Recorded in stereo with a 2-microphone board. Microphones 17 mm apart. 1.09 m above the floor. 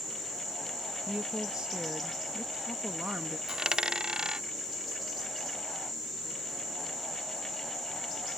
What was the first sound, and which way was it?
A woman speaking, 80° right.